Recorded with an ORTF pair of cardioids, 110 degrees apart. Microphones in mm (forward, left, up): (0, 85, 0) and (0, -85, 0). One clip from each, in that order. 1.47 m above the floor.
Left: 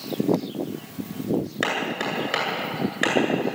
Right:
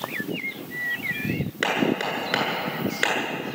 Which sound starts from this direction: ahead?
Hammering, at 1.6 s.